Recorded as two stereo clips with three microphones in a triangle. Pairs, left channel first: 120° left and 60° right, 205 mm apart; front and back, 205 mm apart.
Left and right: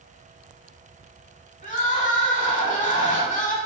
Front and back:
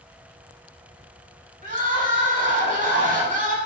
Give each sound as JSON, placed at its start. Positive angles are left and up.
{"t": 1.6, "sound": "crying", "azimuth_deg": 150, "distance_m": 0.5}